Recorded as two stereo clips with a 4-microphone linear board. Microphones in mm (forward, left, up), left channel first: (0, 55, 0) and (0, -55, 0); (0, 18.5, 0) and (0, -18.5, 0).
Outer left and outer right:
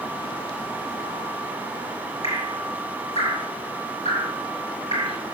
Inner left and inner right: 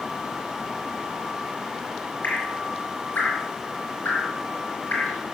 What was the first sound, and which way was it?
Dripping, 70° left (ahead or behind).